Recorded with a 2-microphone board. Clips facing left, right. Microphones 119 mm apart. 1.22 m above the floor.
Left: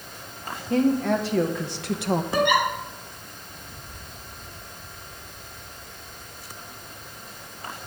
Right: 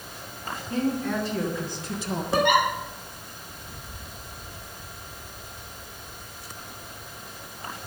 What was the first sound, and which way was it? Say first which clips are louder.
A woman speaking: left 5 dB; 85° left.